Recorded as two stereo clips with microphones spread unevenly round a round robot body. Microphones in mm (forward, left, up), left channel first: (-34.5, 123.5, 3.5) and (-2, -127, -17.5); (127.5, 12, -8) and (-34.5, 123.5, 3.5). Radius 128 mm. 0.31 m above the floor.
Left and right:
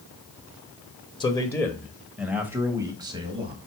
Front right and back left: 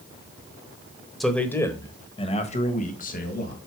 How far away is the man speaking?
About 1.1 m.